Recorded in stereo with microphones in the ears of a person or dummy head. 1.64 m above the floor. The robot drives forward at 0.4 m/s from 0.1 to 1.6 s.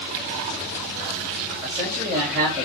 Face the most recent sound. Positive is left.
turn(degrees=-5)  # may be behind; listen again after turning